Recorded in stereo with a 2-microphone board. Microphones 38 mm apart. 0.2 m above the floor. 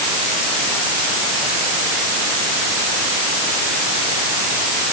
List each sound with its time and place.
Only background noise.